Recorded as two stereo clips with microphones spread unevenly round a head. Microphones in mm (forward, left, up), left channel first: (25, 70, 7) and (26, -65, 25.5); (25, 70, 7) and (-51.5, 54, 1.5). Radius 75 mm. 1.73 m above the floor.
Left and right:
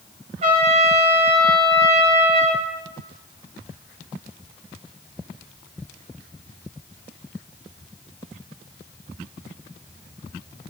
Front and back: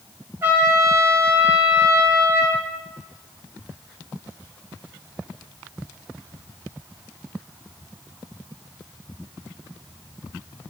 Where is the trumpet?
100° right, 1.3 m.